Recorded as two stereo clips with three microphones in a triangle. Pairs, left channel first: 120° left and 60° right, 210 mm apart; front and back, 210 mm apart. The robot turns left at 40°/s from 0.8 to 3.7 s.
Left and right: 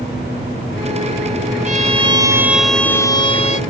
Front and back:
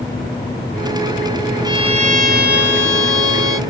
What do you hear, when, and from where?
1.6 s a violin: 110° right; by 3.6 s 170° left